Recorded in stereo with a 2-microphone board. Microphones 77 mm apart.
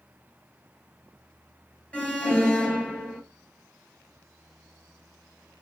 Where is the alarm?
15° left (ahead or behind), 2.0 m.